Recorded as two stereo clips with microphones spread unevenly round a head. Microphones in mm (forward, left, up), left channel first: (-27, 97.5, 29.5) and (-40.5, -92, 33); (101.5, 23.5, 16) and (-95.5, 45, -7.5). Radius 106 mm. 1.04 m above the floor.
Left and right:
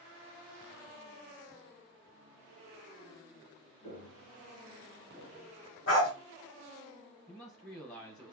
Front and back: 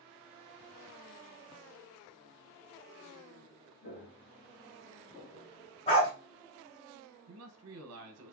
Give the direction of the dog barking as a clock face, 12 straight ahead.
10 o'clock.